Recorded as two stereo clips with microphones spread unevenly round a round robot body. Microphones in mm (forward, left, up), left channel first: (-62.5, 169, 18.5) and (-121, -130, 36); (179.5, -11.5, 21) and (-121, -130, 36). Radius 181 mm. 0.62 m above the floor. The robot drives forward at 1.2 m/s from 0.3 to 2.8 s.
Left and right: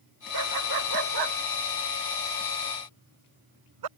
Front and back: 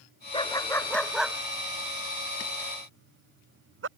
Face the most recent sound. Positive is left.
turn(degrees=-105)